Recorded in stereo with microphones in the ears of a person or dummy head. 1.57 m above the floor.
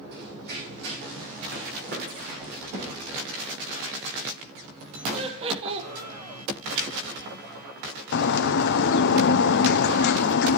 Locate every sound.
0.1 s running footsteps: 55° right (ahead or behind), 3.5 m; by 2.5 s 45° right (ahead or behind), 6 m
2.7 s a thud: 75° right (ahead or behind), 5 m
5.1 s laughter: 25° right (ahead or behind), 1.3 m
8.1 s a bird: 50° left (ahead or behind), 0.6 m